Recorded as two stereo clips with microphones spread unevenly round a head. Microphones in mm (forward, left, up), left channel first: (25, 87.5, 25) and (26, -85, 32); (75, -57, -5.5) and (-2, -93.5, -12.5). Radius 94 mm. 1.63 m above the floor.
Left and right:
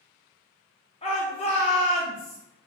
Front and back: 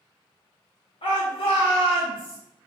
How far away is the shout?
About 0.9 m.